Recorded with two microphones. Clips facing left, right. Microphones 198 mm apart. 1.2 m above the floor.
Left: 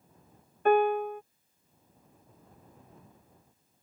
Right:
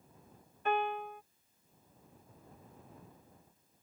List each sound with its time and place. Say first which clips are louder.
0.7 s a piano: left 11 dB; 55° left (ahead or behind)